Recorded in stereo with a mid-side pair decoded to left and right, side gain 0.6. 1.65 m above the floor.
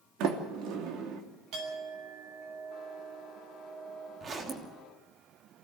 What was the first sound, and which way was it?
A sliding door, 70° right.